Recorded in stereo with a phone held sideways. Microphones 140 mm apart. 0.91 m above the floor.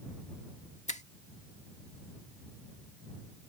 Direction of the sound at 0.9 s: 60° left (ahead or behind).